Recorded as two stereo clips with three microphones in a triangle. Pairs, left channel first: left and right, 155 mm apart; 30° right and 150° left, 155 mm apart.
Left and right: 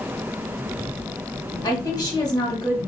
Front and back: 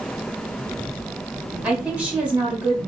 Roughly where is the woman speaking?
Left.